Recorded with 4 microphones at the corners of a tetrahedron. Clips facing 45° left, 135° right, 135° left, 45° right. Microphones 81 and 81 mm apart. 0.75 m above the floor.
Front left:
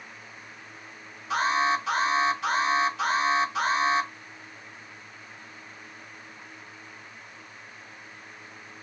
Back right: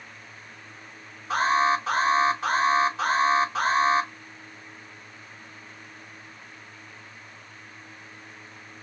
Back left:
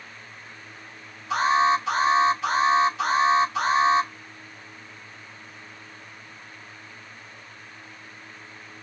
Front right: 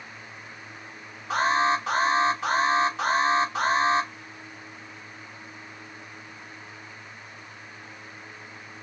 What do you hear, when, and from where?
1.3 s an alarm: 85° right, 4 m